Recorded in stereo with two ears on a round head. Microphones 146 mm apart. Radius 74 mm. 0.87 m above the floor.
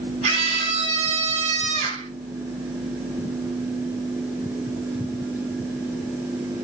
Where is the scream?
40° right (ahead or behind), 7 m.